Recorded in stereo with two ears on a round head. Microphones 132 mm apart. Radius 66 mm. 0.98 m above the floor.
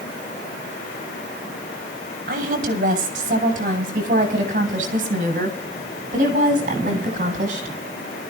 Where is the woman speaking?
60° right (ahead or behind), 5.5 m; by 7.7 s 50° right (ahead or behind), 8.5 m.